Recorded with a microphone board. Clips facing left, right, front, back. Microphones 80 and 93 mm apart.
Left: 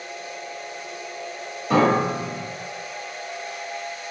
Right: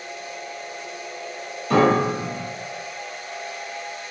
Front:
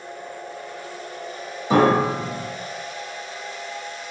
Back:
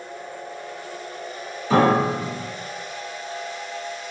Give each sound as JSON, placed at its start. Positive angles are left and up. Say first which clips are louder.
{"t": 1.7, "sound": "a piano", "louder": "right 1 dB, front 1 dB", "azimuth_deg": 35, "distance_m": 1.5}